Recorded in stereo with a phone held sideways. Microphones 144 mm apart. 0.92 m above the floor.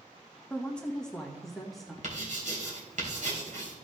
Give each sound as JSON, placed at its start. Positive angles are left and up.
{"t": 0.5, "sound": "a woman speaking", "side_deg": 10, "distance_m": 1.1}
{"t": 2.0, "sound": "writing", "side_deg": -65, "distance_m": 3.5}